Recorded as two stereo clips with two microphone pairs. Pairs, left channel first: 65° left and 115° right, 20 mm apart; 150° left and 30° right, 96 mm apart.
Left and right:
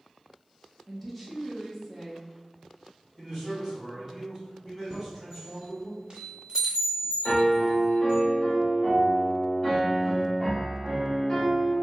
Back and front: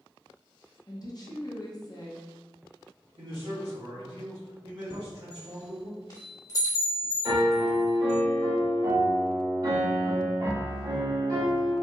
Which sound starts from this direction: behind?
A chime, at 4.9 s.